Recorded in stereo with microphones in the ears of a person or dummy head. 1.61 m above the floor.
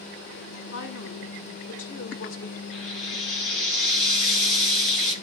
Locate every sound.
0.7 s a woman speaking: 80° left, 2.0 m
2.7 s frying: 85° left, 3.5 m